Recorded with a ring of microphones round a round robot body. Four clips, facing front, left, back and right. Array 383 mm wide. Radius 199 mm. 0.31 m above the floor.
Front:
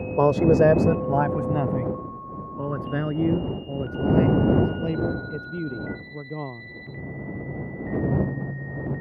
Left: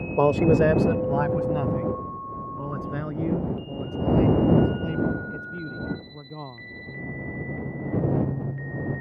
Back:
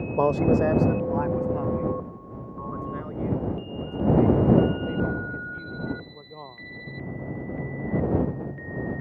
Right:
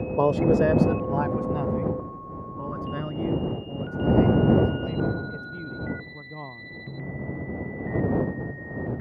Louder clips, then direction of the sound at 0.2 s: Left 2 dB, front 4 dB; 45° left.